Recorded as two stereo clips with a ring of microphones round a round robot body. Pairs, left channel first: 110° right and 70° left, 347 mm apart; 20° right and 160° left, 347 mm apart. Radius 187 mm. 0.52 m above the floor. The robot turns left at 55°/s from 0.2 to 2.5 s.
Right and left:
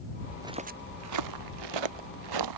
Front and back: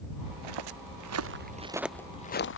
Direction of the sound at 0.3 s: 155° left.